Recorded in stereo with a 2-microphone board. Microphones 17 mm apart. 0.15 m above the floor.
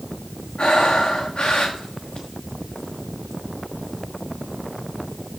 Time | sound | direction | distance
0.6 | breathing | 55° left (ahead or behind) | 2 m